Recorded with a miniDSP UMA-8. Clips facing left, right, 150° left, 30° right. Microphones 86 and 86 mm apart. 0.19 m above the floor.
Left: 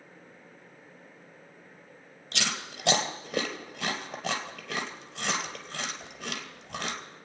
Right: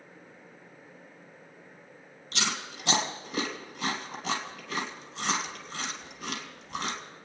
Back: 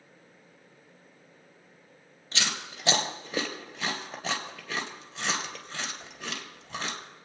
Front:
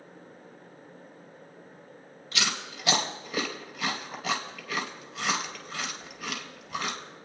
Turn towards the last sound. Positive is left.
turn(degrees=90)